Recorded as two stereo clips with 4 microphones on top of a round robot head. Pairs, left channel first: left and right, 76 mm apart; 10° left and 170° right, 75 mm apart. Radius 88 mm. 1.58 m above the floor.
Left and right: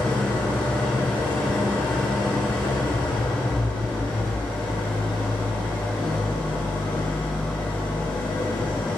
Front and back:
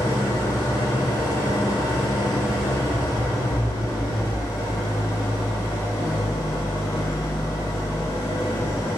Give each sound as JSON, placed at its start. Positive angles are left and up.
{"t": 0.0, "sound": "an engine running", "azimuth_deg": 20, "distance_m": 1.0}